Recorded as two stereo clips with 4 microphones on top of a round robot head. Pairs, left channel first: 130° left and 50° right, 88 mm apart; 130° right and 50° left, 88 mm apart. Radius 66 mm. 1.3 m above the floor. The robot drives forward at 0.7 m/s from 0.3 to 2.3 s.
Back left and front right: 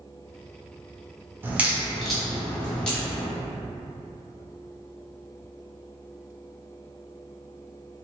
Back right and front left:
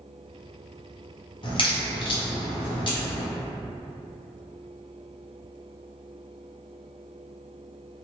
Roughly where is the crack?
Behind right.